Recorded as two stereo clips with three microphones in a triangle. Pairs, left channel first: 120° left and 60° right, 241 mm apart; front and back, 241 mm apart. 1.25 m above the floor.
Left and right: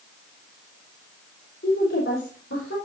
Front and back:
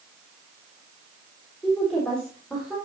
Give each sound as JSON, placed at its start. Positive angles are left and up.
{"t": 1.6, "sound": "a woman speaking", "azimuth_deg": 80, "distance_m": 3.5}